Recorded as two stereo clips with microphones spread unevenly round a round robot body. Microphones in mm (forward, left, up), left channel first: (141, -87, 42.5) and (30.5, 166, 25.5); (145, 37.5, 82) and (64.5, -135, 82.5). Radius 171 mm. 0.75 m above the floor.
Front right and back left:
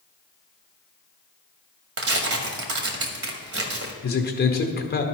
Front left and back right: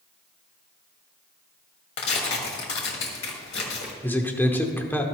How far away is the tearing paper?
About 1.4 m.